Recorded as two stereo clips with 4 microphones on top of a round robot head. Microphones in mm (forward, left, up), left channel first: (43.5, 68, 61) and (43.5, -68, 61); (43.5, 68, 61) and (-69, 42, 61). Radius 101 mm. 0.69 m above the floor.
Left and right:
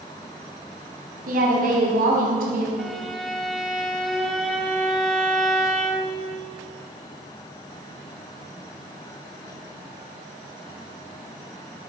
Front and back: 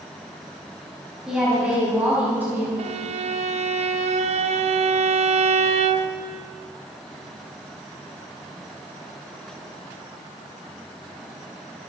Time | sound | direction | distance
1.3 | a woman speaking | 80° right | 4.5 m
2.8 | a violin | straight behind | 0.8 m